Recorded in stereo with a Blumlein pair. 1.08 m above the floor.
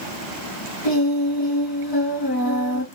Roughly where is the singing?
Ahead left.